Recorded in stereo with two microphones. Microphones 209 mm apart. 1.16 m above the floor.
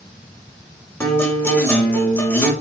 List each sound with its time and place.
1.0 s a guitar: 10° left (ahead or behind), 6 m